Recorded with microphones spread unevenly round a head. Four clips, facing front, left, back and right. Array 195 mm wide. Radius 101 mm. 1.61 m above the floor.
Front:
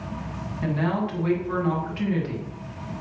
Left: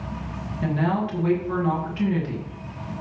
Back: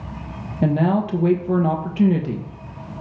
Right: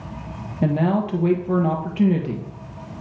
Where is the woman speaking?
145° right, 1.5 m.